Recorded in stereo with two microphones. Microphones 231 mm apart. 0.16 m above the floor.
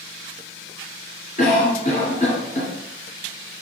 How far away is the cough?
About 1.8 m.